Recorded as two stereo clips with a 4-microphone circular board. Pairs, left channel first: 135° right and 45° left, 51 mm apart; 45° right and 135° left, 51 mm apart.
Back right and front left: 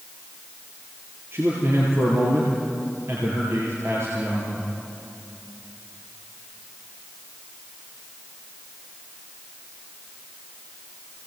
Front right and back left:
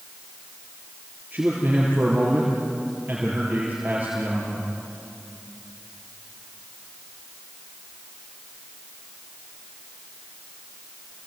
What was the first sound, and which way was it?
A man speaking, 70° left.